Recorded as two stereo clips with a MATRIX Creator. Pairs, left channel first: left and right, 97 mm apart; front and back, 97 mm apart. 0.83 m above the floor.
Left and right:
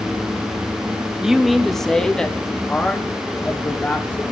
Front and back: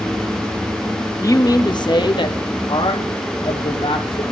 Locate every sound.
1.2 s a man speaking: 10° right, 0.8 m; by 4.2 s 15° left, 2 m